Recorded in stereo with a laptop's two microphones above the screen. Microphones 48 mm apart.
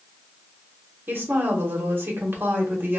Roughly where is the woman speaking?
Right.